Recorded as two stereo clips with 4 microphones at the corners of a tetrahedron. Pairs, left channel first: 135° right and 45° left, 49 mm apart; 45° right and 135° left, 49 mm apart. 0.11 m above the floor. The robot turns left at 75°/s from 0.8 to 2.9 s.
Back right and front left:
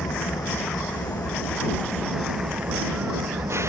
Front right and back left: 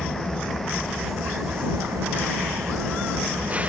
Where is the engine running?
130° right; by 3.7 s 70° left.